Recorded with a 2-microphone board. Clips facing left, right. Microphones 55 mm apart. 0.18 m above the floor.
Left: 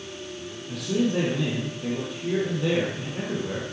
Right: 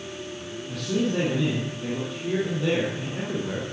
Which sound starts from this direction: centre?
A man speaking, at 0.7 s.